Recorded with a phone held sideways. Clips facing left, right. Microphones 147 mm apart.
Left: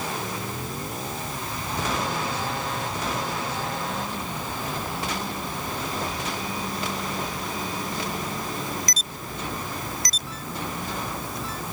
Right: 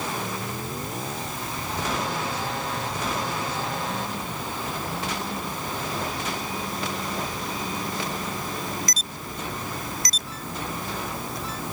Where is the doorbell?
I don't hear a doorbell.